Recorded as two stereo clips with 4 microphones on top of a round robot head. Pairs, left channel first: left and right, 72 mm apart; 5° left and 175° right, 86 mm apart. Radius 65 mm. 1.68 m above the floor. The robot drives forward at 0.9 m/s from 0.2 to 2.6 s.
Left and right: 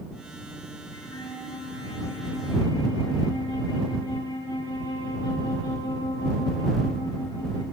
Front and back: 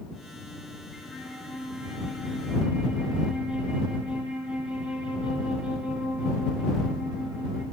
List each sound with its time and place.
0.9 s a flute: 90° left, 7 m; by 7.6 s 105° left, 7.5 m